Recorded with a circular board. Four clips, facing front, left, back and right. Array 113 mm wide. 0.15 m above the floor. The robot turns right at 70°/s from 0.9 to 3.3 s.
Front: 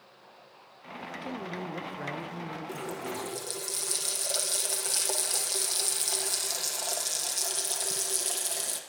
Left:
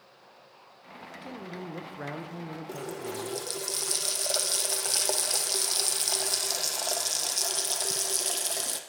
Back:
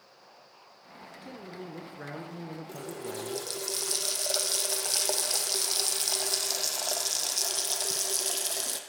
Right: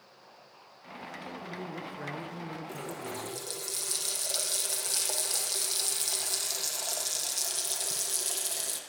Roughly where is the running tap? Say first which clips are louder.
Left 3 dB, front 2 dB; left.